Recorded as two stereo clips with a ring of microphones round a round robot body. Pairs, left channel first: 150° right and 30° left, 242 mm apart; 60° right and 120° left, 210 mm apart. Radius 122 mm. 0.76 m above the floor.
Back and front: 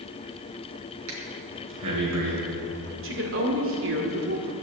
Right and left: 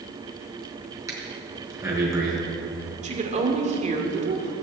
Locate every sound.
1.1 s breathing: 45° left, 4 m
3.0 s a woman speaking: 65° left, 2.5 m